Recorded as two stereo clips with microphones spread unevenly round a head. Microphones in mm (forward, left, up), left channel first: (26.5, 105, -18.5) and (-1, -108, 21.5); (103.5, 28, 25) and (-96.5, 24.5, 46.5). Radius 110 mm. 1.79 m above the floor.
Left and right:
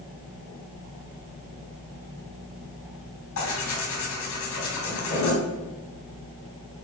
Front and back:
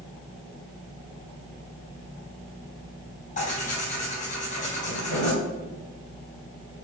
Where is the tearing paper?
55° left, 4 m.